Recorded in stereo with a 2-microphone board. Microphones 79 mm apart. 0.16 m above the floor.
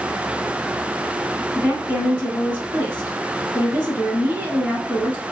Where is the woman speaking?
25° right (ahead or behind), 1.8 m.